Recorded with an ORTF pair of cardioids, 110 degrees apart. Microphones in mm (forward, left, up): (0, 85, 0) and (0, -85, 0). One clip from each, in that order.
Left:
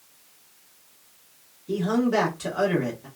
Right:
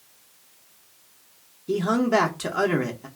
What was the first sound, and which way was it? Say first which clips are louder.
A man speaking: right 2 dB; 40° right.